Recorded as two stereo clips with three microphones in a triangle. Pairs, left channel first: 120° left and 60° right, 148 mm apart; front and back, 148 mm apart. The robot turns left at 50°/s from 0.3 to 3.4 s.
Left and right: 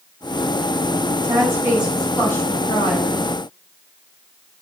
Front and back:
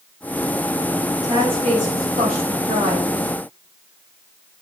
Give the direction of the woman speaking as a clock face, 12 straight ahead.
4 o'clock.